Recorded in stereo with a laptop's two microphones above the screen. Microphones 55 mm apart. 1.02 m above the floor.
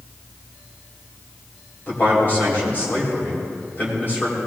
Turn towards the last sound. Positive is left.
turn(degrees=35)  # may be behind; listen again after turning